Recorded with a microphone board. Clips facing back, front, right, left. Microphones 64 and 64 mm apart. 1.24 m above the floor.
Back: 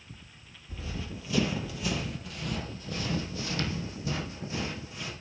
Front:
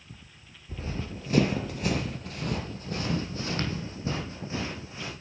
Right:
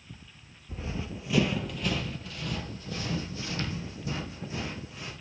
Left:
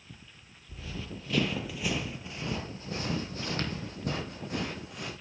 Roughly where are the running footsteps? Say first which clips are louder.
Front 3 dB, right 4 dB; ahead right.